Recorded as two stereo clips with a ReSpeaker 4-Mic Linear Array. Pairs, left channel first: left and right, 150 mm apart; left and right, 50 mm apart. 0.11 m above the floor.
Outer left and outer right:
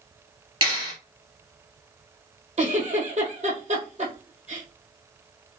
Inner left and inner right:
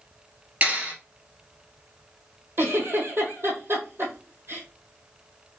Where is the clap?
30° right (ahead or behind), 2.0 m.